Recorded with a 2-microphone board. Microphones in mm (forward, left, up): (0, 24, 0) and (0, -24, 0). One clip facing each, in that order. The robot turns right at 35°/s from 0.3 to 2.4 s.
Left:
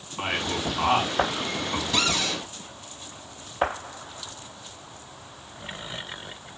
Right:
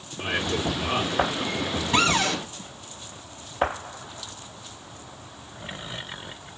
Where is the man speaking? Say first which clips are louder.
Right 1 dB; 70° left (ahead or behind), 8 m; by 2.1 s 50° left (ahead or behind), 8 m.